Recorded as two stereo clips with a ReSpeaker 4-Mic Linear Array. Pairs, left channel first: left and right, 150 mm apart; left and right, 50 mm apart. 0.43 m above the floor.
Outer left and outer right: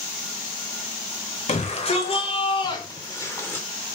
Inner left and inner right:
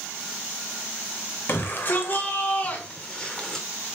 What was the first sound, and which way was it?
A shout, 45° left (ahead or behind).